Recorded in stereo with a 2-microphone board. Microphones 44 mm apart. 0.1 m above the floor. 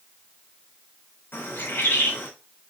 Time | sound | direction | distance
1.3 | a bird | 60° left (ahead or behind) | 5 m